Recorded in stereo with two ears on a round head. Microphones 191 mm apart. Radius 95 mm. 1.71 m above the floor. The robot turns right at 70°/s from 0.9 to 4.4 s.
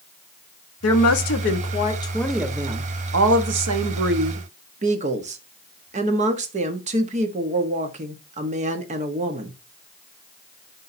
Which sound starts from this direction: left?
A woman speaking, at 0.8 s.